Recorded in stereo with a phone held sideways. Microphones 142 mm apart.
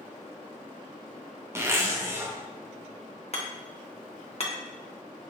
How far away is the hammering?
About 0.7 m.